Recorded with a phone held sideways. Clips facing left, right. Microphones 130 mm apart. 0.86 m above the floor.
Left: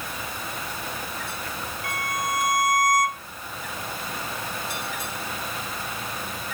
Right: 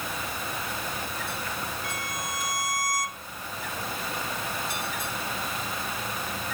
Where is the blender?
I don't hear a blender.